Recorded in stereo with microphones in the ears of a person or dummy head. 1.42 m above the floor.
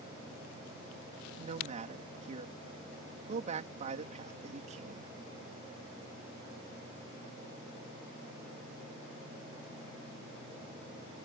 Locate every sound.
1.4 s a man speaking: 35° right (ahead or behind)